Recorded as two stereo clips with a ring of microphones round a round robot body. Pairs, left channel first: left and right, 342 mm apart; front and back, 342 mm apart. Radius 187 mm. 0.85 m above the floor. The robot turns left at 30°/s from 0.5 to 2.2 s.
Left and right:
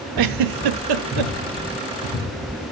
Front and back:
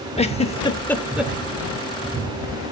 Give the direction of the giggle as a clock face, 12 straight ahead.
2 o'clock.